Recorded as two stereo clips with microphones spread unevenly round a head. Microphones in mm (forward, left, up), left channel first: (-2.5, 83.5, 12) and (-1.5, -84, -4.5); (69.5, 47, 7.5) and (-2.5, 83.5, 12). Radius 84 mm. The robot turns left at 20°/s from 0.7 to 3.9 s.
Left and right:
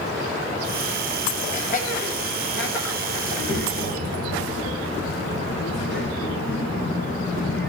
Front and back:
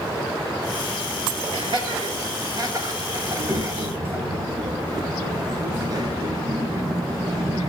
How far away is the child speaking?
About 9 m.